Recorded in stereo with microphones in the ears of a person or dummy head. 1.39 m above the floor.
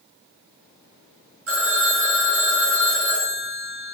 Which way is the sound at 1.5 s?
60° right (ahead or behind).